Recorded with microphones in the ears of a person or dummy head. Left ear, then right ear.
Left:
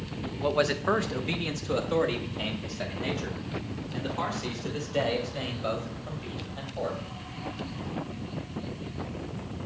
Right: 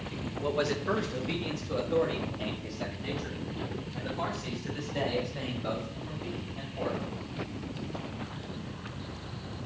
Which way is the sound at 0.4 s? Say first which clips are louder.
Left 4 dB; 15° left (ahead or behind).